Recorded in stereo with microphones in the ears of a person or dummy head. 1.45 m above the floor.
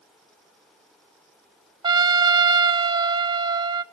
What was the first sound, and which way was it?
A trumpet, 25° right (ahead or behind).